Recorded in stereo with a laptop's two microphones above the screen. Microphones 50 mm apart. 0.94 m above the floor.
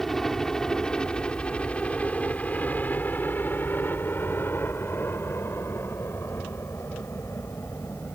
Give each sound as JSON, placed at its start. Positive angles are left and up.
{"t": 0.0, "sound": "a helicopter", "side_deg": 5}